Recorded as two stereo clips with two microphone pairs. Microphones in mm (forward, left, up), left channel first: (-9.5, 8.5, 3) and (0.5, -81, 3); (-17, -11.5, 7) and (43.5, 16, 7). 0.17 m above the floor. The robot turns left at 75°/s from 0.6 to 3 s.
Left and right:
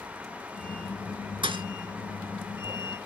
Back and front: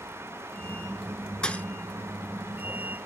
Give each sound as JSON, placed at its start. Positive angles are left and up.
{"t": 1.4, "sound": "a thud", "azimuth_deg": -80, "distance_m": 0.8}